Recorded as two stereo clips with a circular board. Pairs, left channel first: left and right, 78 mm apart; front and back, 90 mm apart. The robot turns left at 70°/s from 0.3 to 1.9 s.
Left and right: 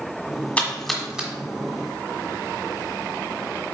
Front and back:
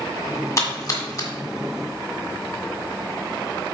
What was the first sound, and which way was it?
A splash, 30° left.